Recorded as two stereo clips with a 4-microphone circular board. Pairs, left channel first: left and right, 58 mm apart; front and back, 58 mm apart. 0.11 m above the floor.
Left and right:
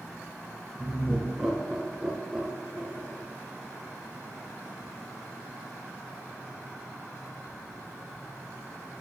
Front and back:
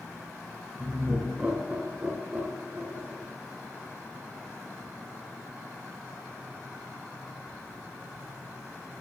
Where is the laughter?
Straight behind, 1.0 m.